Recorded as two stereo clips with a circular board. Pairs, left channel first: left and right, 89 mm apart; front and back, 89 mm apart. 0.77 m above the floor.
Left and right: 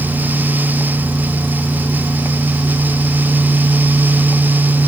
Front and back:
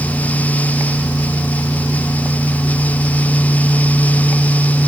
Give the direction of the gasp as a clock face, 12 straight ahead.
No gasp in this recording.